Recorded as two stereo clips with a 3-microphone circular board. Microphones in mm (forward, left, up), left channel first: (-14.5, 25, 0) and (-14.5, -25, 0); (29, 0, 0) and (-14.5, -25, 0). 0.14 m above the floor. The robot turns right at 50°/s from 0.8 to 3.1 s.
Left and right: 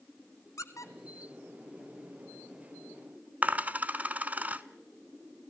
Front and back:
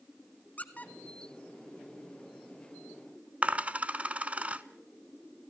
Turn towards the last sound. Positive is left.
turn(degrees=-110)